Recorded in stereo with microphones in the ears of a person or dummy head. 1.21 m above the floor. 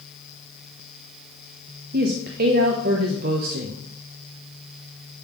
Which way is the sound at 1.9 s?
50° right (ahead or behind).